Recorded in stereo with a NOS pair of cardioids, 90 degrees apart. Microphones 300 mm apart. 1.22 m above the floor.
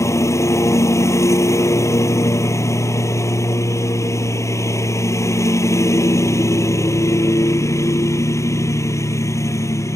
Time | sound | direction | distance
0.0 | a lawn mower | 10° left | ?